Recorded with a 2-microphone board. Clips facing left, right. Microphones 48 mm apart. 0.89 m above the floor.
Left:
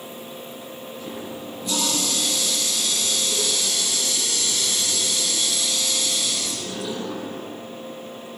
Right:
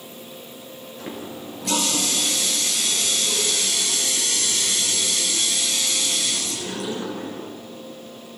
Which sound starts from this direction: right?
A running tap, at 1.0 s.